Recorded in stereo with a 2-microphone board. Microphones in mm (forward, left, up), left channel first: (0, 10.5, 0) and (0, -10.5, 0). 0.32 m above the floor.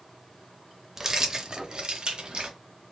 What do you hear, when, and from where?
1.0 s keys jangling: 15° right (ahead or behind), 0.5 m; by 2.6 s 55° right (ahead or behind), 1.1 m